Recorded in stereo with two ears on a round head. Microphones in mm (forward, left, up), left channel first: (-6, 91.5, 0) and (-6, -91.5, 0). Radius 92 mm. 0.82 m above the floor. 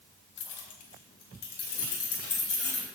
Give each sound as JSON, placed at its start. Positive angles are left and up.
{"t": 0.4, "sound": "keys jangling", "side_deg": 65, "distance_m": 1.7}